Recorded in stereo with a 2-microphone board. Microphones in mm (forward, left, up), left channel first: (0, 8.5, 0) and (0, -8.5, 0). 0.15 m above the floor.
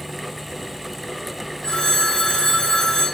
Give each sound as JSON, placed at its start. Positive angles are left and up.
{"t": 1.6, "sound": "a phone ringing", "side_deg": 50, "distance_m": 5.5}